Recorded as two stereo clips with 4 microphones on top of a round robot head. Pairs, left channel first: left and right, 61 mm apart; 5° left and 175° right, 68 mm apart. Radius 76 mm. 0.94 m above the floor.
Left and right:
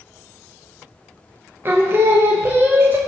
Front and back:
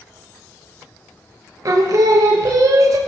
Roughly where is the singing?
Behind right.